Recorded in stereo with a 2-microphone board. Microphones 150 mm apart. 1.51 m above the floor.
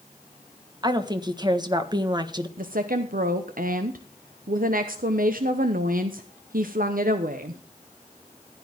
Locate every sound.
0.8 s a woman speaking: 30° right (ahead or behind), 1.4 m
2.6 s a woman speaking: 80° right, 1.0 m